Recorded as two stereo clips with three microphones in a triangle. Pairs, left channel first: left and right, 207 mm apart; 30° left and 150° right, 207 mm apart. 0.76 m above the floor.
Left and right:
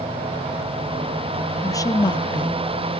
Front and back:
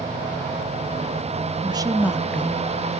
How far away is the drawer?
No drawer in this recording.